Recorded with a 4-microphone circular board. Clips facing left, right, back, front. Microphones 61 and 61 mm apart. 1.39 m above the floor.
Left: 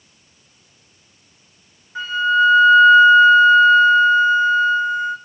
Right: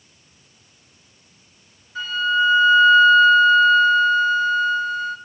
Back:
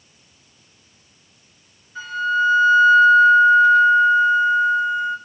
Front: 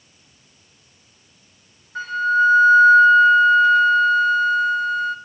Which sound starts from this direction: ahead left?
A flute, at 1.9 s.